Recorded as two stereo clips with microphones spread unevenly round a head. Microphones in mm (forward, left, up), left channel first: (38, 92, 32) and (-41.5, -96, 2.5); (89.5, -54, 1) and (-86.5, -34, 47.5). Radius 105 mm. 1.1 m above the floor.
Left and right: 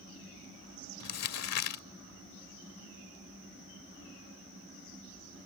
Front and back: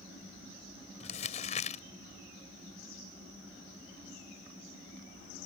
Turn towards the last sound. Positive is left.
turn(degrees=60)